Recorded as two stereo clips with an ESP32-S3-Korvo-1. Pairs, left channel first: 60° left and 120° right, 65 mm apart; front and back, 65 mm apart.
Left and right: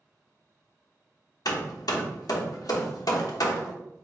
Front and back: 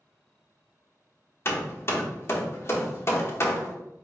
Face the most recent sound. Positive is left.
turn(degrees=45)